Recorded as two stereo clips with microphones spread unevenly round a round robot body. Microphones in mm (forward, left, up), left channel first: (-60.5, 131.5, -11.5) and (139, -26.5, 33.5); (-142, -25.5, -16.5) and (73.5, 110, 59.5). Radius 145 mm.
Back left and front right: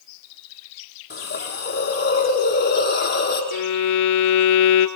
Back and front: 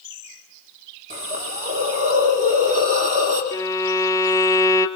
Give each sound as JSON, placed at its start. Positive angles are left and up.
{"t": 1.1, "sound": "a hiss", "azimuth_deg": 90, "distance_m": 7.0}
{"t": 3.5, "sound": "a violin", "azimuth_deg": 130, "distance_m": 1.8}